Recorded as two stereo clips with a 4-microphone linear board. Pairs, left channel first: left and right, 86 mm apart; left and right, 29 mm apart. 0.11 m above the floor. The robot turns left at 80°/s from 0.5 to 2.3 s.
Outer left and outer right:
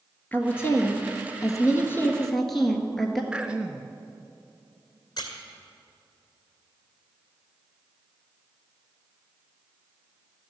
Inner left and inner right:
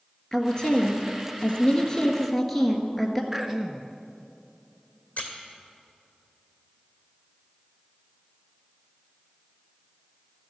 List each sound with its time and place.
0.3 s a woman speaking: 150° left, 1.7 m; by 3.2 s 5° left, 1.7 m
3.3 s throat clearing: 10° right (ahead or behind), 0.8 m
5.2 s a squeak: 55° left (ahead or behind), 2.0 m